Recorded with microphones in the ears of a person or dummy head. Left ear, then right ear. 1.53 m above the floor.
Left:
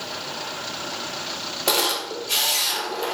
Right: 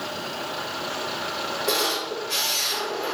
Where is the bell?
No bell in this recording.